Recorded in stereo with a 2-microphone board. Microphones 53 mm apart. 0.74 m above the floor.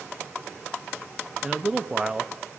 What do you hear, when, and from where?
1.4 s a man speaking: 15° right (ahead or behind), 0.5 m